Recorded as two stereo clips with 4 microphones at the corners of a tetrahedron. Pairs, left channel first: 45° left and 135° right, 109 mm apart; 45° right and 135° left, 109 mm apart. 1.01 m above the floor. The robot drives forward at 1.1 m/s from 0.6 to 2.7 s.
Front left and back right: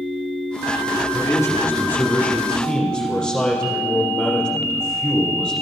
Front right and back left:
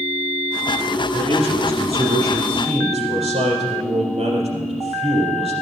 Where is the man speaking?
105° left, 3 m; by 5.5 s 130° left, 4 m.